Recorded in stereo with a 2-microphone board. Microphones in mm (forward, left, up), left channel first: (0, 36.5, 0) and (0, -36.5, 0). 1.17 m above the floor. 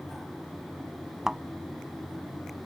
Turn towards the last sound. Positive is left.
turn(degrees=-5)  # may be behind; listen again after turning